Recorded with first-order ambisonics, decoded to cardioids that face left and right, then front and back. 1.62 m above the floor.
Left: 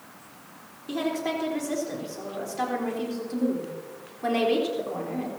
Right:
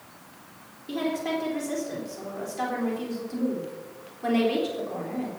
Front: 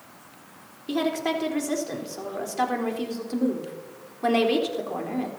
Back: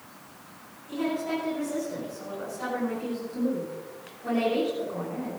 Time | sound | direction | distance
0.9 | a woman speaking | 5° left | 3.5 m